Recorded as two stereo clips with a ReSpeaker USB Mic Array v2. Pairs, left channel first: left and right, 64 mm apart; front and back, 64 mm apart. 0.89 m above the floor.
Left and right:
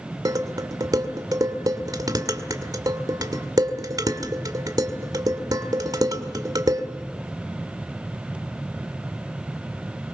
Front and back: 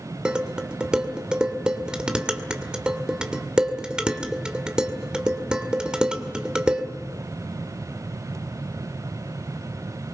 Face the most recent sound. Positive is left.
turn(degrees=-105)